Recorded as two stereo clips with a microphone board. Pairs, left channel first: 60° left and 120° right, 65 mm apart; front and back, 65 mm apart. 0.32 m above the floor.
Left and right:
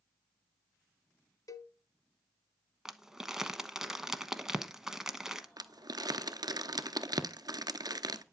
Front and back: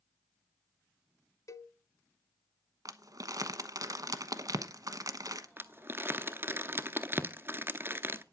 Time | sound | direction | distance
1.5 | a cowbell | 35° left | 0.8 m
2.9 | crumpling | 160° left | 1.0 m
5.6 | crumpling | 125° right | 0.8 m